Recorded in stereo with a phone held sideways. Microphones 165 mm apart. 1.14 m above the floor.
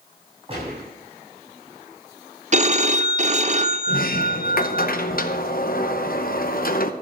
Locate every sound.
0.5 s a gunshot: 35° right (ahead or behind), 7 m
2.5 s a phone ringing: 45° right (ahead or behind), 0.6 m
3.9 s a sliding door: 60° left (ahead or behind), 0.8 m